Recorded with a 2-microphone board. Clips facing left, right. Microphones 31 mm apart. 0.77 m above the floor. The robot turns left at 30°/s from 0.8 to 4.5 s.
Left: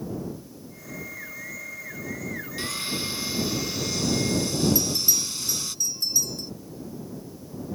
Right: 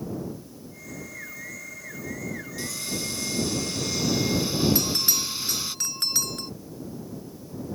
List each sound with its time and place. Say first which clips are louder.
2.6 s sawing: left 3 dB; 40° left; by 5.8 s 20° right
4.8 s a bell: even; 70° right (ahead or behind)